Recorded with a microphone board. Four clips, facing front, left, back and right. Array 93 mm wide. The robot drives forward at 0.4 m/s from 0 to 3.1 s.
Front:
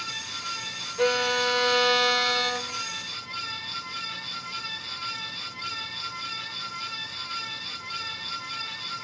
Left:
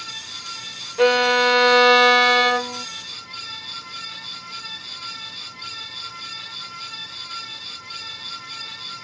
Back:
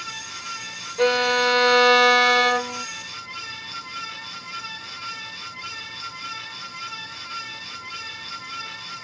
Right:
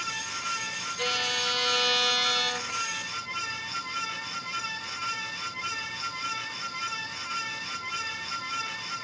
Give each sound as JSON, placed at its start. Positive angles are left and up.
{"t": 1.0, "sound": "a violin", "azimuth_deg": 110}